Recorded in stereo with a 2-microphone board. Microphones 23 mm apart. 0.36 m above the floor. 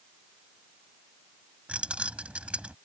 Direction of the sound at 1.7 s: 60° right (ahead or behind).